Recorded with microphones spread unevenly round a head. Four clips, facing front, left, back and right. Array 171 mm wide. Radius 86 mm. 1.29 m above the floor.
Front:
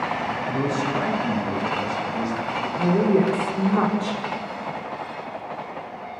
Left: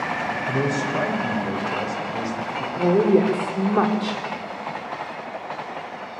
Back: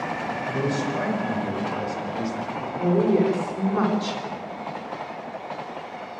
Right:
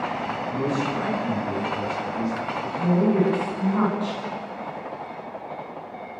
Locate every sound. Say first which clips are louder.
0.5 s a man speaking: left 1 dB, front 1 dB; 105° left, 6.5 m
2.8 s a woman speaking: left 4 dB, even; 95° left, 4 m